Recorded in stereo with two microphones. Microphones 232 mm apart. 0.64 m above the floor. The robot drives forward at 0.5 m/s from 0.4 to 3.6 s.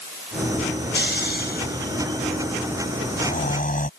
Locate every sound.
0.9 s snoring: 45° left (ahead or behind); by 3.9 s 35° left (ahead or behind)